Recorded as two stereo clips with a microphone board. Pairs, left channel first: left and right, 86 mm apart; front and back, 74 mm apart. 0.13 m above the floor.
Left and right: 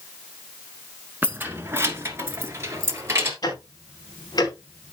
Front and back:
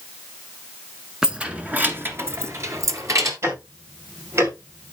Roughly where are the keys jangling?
Behind right.